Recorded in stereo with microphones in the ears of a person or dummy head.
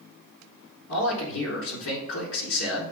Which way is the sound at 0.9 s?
70° left (ahead or behind).